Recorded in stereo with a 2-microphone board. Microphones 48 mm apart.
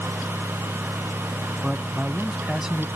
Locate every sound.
1.6 s a man speaking: 10° right (ahead or behind)